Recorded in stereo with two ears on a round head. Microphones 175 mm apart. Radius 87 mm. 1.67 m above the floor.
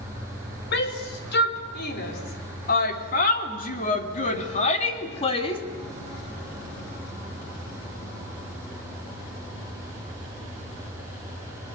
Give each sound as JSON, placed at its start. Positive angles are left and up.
{"t": 0.7, "sound": "a shout", "side_deg": 60, "distance_m": 5.0}